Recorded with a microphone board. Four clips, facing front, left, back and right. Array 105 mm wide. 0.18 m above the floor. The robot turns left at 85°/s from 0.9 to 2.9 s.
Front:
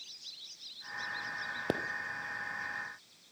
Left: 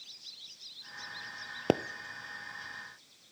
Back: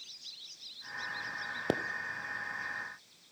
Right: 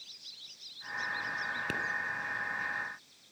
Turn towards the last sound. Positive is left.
turn(degrees=-10)